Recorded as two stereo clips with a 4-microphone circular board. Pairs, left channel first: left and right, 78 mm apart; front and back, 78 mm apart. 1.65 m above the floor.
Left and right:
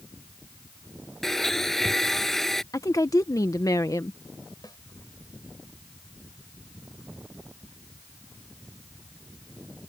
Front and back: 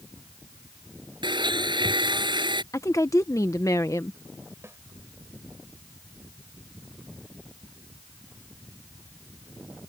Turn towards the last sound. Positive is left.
turn(degrees=120)